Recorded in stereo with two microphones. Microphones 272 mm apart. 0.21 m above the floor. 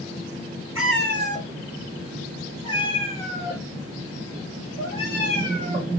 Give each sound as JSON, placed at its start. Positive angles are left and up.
{"t": 0.8, "sound": "a cat meowing", "side_deg": -55, "distance_m": 0.9}